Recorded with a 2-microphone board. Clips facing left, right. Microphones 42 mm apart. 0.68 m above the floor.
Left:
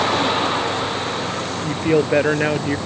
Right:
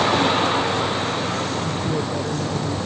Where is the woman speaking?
80° left.